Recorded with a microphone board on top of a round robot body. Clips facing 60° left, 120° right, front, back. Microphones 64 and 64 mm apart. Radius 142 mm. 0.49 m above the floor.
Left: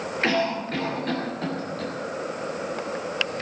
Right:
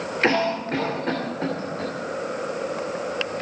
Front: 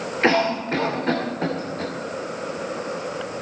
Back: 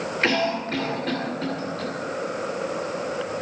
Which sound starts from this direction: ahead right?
A cough, at 0.2 s.